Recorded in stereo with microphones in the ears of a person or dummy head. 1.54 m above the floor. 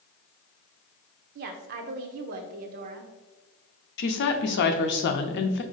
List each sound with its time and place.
1.4 s a woman speaking: 50° right (ahead or behind), 0.6 m
4.0 s a woman speaking: 55° left (ahead or behind), 0.6 m